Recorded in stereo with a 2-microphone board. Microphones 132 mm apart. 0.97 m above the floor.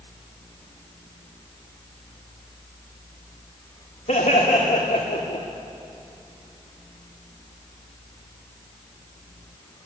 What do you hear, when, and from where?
4.1 s laughter: 75° left (ahead or behind), 2.5 m; by 5.5 s 70° left (ahead or behind), 1.8 m